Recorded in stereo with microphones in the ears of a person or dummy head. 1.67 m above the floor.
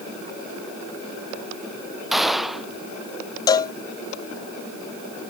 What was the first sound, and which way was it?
A gunshot, centre (ahead or behind).